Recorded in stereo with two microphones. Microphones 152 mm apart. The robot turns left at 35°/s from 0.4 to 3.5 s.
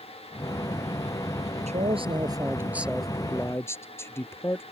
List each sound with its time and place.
1.7 s a man speaking: 130° right; by 4.6 s 165° left